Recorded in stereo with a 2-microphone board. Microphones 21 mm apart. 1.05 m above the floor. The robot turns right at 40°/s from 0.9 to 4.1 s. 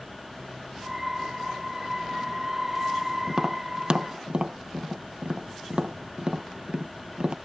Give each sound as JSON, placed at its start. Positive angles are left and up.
{"t": 3.3, "sound": "tapping", "side_deg": -30}